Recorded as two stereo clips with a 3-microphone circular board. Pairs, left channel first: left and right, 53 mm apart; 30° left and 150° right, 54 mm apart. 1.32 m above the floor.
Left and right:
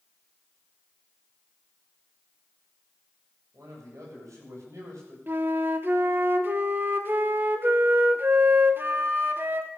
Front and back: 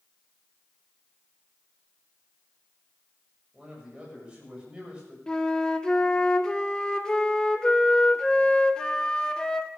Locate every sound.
3.5 s a man speaking: 80° right, 8 m
5.3 s a flute: 45° right, 1.2 m